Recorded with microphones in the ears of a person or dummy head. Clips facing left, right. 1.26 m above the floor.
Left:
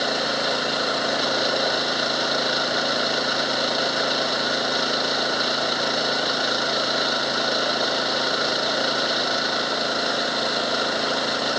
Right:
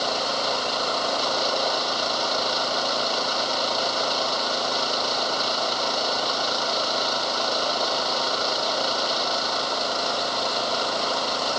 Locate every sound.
0.0 s an engine running: 20° left (ahead or behind)